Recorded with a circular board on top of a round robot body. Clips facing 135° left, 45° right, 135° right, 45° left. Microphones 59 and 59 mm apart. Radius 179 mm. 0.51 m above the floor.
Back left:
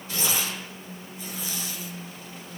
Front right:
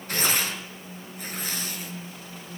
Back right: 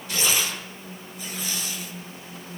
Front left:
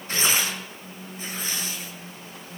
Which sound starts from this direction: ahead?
Tearing paper, at 0.1 s.